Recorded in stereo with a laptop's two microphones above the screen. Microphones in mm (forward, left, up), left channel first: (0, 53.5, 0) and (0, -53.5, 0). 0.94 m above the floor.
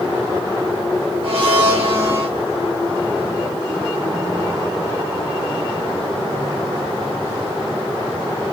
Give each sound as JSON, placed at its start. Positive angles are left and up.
{"t": 1.2, "sound": "a blender", "side_deg": -55, "distance_m": 1.2}